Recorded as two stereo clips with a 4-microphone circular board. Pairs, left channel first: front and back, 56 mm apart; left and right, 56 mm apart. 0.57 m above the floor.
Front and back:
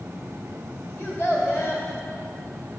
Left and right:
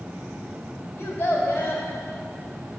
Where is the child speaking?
45° left, 1.6 m.